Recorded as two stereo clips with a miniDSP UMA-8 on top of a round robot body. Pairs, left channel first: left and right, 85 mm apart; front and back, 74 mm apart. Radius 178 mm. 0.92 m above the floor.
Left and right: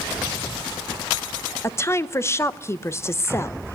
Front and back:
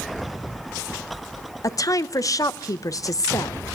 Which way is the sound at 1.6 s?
35° left.